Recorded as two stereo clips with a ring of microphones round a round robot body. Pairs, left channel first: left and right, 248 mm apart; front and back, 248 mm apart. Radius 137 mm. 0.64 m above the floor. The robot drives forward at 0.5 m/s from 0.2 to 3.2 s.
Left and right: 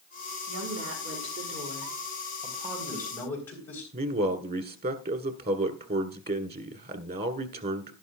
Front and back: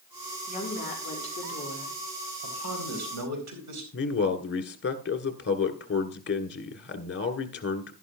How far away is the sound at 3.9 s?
About 1.7 m.